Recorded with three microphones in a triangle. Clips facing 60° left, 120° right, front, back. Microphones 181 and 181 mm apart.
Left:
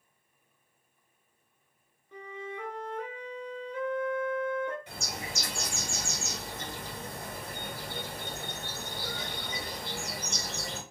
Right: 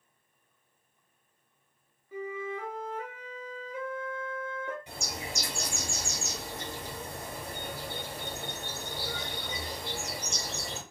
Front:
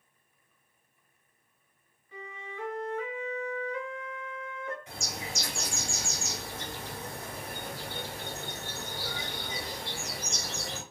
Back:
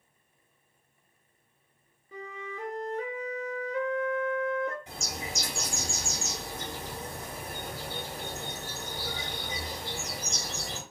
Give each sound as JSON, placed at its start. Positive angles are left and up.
{"t": 2.1, "sound": "a flute", "azimuth_deg": 160, "distance_m": 0.7}
{"t": 4.9, "sound": "a bird", "azimuth_deg": 180, "distance_m": 1.8}